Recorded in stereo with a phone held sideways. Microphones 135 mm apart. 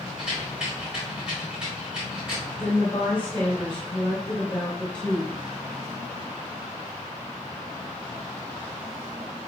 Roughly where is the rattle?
Centre.